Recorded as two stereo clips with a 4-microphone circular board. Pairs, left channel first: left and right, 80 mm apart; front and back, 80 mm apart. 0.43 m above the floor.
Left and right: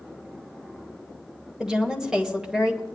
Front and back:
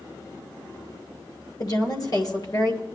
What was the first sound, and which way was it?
A woman speaking, 10° right.